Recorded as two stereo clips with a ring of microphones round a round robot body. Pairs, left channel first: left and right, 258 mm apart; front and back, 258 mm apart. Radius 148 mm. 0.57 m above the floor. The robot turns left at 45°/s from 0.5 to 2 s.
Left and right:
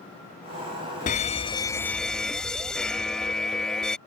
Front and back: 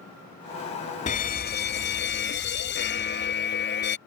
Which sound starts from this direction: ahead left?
A fire alarm, at 1.1 s.